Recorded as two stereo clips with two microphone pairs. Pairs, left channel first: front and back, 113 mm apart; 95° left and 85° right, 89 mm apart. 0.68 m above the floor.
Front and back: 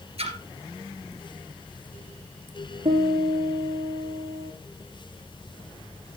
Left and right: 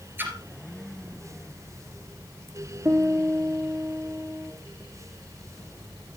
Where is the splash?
155° right, 2.5 m.